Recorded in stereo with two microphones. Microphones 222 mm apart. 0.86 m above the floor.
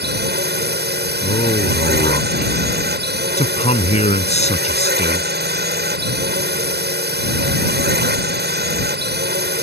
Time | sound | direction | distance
0.0 | a drone | 50° right (ahead or behind) | ?
1.2 | a man speaking | 30° left (ahead or behind) | ?